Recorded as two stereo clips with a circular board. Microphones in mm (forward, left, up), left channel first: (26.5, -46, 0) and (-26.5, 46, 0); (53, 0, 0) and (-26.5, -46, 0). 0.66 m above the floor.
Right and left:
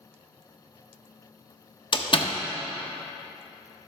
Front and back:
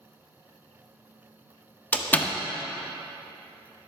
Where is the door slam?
40° right, 0.6 m.